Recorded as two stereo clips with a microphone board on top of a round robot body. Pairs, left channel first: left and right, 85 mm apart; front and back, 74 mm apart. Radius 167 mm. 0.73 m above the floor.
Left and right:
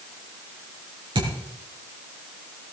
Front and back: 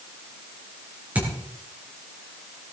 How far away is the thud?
About 5.5 m.